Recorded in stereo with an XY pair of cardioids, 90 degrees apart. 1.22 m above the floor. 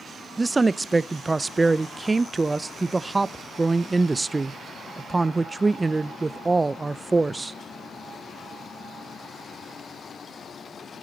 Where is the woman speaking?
25° right, 0.6 m.